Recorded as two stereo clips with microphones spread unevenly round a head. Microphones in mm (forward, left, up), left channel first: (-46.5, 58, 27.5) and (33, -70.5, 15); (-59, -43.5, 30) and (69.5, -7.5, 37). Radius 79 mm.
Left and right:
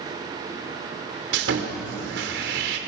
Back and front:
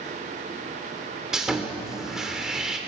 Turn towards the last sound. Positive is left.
turn(degrees=-70)